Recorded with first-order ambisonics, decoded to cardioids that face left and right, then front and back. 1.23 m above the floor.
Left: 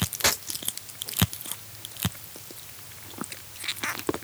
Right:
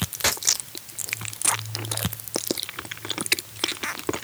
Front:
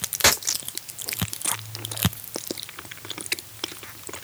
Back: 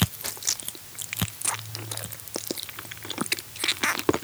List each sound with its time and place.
Only background noise.